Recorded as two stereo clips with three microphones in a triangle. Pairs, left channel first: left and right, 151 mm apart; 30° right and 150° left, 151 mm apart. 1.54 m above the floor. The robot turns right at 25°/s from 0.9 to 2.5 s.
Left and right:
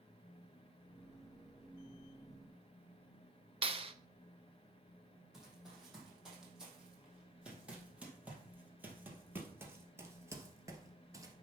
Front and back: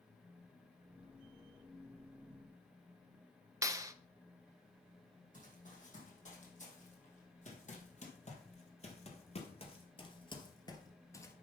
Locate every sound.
3.6 s a clap: 140° right, 0.6 m
5.3 s running footsteps: straight ahead, 3.5 m; by 11.3 s 75° right, 1.6 m